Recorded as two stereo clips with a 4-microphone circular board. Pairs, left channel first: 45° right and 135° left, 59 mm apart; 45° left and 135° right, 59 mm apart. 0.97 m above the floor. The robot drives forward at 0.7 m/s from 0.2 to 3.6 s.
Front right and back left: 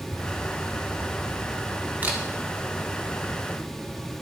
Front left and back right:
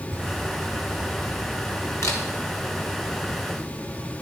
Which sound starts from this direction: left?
A camera shutter, at 2.0 s.